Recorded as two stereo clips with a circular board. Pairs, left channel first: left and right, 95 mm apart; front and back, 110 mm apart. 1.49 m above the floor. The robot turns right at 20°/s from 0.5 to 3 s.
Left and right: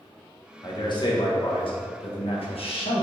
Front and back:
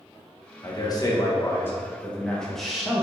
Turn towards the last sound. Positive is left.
turn(degrees=95)